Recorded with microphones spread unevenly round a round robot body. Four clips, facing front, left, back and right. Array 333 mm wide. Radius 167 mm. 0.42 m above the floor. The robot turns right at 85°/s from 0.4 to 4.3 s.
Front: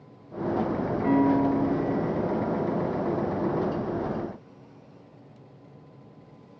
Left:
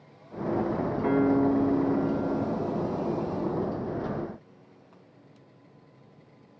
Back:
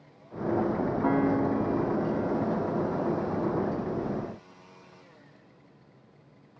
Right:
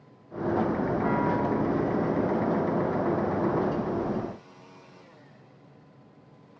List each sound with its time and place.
1.0 s a piano: 175° left, 5 m; by 3.0 s 10° right, 5 m